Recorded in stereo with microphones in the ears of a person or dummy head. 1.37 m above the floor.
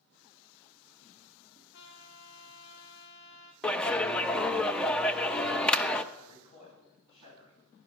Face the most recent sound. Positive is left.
turn(degrees=35)  # may be behind; listen again after turning